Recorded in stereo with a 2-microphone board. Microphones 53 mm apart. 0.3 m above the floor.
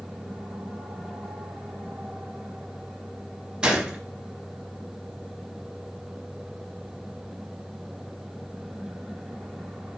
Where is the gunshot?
15° right (ahead or behind), 0.6 m.